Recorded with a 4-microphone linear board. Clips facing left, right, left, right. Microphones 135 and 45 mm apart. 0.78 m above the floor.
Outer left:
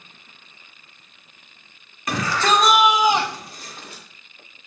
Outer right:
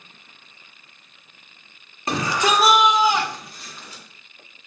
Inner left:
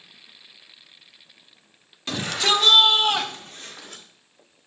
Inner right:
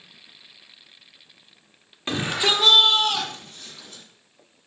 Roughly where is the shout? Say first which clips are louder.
Even, even; right.